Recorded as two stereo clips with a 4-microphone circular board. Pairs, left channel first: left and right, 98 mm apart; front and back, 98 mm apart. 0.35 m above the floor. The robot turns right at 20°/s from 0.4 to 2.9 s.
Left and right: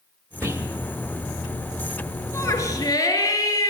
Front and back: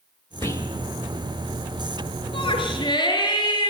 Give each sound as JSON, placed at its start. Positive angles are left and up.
{"t": 0.4, "sound": "whispering", "azimuth_deg": -45, "distance_m": 1.1}
{"t": 2.3, "sound": "a shout", "azimuth_deg": 25, "distance_m": 5.0}